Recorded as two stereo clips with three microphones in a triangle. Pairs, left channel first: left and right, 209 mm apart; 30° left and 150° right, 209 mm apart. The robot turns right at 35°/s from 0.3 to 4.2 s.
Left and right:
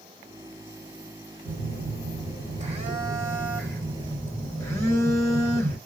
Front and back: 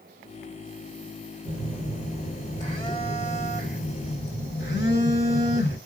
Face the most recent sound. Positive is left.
turn(degrees=15)